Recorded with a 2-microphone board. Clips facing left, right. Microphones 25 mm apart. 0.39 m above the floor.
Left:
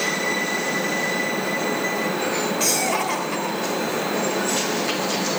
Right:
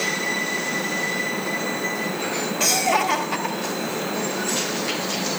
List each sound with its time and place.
2.6 s laughter: 5° right (ahead or behind), 1.8 m